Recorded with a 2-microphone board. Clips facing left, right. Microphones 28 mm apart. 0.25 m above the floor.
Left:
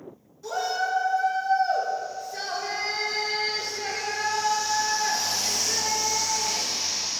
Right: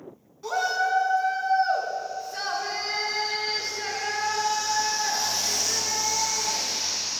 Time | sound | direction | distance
0.4 | a shout | 45° right (ahead or behind) | 2.5 m